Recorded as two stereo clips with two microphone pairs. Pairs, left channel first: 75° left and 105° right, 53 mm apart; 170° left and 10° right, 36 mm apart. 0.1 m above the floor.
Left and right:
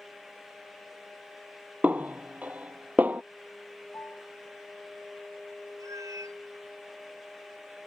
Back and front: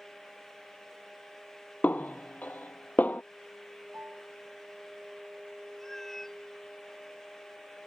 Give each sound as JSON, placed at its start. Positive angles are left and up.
{"t": 1.8, "sound": "a snare drum", "azimuth_deg": -160}
{"t": 3.9, "sound": "a piano", "azimuth_deg": 30}
{"t": 5.8, "sound": "a cat meowing", "azimuth_deg": -110}